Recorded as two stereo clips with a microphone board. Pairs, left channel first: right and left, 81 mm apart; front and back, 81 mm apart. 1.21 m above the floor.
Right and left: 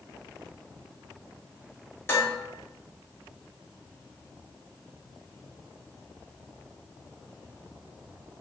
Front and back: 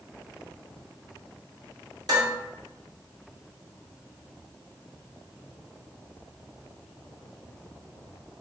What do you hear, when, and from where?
2.1 s dishes clattering: 150° right, 1.1 m